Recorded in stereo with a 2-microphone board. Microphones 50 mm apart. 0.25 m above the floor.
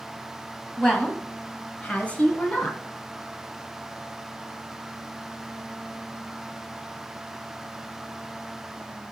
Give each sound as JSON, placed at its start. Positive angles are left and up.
{"t": 0.8, "sound": "a woman speaking", "side_deg": 20, "distance_m": 1.4}